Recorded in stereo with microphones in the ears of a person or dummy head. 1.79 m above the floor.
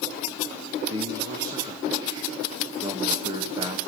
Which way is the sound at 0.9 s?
30° right (ahead or behind).